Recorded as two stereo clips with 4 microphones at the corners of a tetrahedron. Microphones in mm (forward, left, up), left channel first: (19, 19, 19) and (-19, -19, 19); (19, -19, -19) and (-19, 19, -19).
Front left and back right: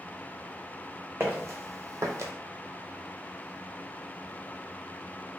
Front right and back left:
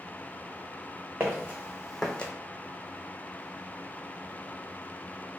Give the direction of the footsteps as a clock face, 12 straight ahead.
6 o'clock.